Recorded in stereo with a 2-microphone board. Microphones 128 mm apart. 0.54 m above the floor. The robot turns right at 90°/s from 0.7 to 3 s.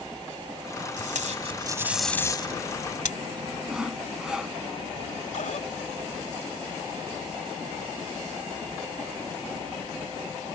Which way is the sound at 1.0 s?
85° right.